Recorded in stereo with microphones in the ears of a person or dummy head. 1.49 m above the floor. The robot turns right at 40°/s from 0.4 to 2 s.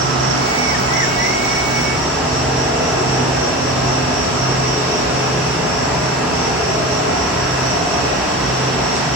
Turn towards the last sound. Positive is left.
turn(degrees=-15)